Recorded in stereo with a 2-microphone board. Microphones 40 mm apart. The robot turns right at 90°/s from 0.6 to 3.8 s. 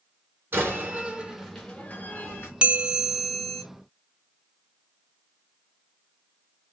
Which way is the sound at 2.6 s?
50° right.